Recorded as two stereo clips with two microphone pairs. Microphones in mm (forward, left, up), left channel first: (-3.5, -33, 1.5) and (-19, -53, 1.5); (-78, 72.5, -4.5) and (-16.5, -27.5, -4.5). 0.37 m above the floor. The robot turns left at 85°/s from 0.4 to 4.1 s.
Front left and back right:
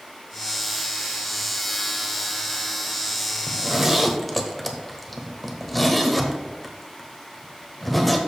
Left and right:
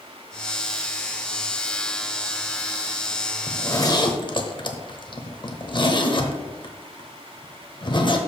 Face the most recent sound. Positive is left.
turn(degrees=140)